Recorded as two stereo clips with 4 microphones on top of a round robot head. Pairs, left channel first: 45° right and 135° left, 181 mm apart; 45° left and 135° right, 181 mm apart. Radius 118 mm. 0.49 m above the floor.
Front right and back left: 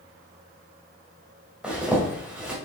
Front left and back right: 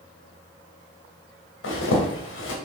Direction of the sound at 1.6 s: 50° left.